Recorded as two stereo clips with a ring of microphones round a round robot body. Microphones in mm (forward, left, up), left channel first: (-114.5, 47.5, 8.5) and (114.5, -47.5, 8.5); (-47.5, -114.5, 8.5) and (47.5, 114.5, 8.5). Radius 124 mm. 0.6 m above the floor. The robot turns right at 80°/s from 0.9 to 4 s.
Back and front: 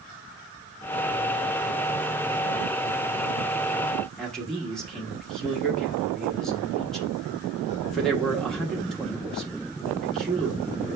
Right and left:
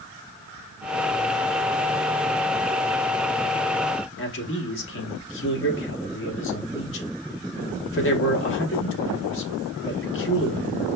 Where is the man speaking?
115° right, 1.1 m.